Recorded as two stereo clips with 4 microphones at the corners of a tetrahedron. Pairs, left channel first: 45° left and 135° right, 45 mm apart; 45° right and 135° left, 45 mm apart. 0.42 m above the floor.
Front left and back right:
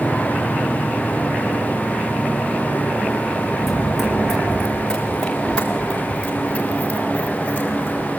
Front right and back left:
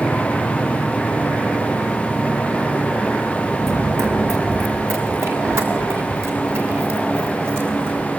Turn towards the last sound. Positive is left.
turn(degrees=100)